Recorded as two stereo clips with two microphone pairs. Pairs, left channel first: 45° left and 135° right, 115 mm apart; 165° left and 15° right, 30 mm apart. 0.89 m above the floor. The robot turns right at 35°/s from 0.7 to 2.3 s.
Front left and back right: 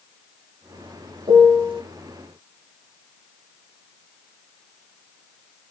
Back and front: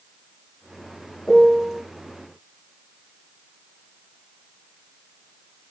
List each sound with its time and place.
1.3 s a piano: 120° right, 1.0 m; by 1.8 s 100° right, 1.0 m